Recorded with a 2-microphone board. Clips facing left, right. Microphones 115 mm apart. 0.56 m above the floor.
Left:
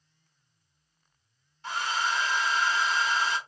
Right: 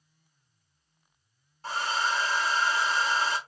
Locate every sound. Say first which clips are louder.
1.6 s a hair dryer: right 1 dB; 35° right (ahead or behind), 0.9 m